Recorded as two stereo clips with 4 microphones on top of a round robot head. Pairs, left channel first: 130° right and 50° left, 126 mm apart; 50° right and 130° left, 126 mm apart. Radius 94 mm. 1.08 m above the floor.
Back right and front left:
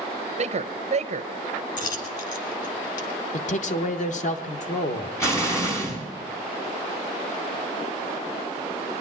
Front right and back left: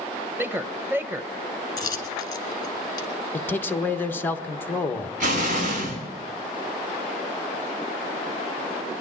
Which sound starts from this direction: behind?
An explosion, at 5.2 s.